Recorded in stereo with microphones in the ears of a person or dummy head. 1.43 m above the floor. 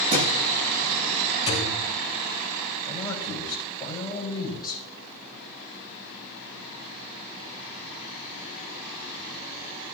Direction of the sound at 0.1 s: 40° right (ahead or behind).